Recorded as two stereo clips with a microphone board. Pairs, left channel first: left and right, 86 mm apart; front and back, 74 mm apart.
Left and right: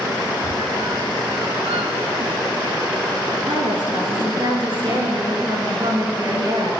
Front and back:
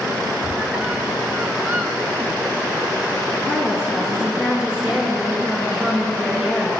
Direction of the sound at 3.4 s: 100° right.